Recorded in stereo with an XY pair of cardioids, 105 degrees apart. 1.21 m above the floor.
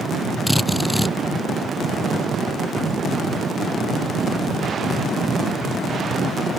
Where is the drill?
Straight ahead.